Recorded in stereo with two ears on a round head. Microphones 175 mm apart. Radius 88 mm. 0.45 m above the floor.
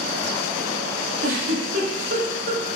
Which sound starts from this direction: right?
A giggle, at 1.2 s.